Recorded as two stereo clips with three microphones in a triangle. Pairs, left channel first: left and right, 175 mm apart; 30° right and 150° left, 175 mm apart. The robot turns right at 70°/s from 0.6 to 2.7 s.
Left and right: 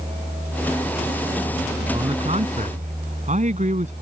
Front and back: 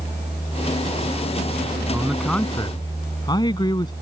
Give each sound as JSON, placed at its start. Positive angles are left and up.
{"t": 1.9, "sound": "a man speaking", "azimuth_deg": -140}